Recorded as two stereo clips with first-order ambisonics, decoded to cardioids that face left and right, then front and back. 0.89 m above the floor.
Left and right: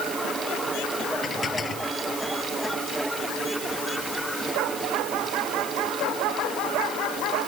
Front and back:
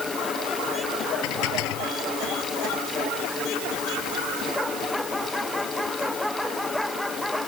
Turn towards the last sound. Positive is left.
turn(degrees=20)